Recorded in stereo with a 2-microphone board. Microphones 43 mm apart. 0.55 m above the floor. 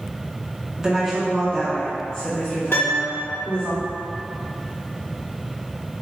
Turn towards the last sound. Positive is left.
turn(degrees=55)  # may be behind; listen again after turning